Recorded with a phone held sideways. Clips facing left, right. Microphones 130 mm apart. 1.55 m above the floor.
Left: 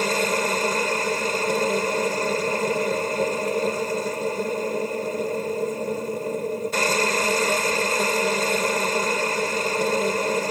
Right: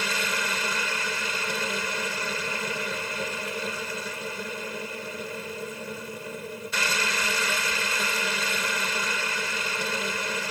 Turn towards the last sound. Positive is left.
turn(degrees=45)  # may be behind; listen again after turning